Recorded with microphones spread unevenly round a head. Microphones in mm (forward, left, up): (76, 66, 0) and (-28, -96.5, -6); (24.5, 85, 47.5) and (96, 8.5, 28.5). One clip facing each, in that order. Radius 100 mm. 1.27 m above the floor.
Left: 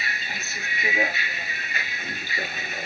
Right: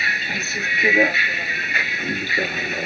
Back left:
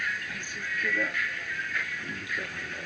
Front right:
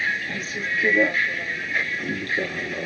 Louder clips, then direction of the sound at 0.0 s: Right 6 dB, front right 6 dB; 95° right.